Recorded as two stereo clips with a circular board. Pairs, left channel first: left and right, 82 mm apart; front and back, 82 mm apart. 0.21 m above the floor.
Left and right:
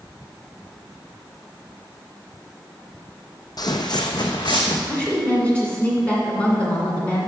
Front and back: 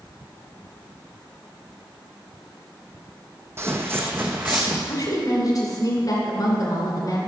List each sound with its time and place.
3.6 s footsteps: 125° left, 0.6 m; by 4.8 s 115° left, 1.3 m
4.9 s a woman speaking: 20° left, 2.5 m